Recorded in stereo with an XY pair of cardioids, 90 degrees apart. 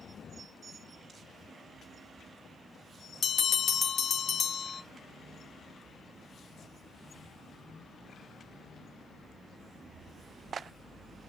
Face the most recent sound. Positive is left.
turn(degrees=50)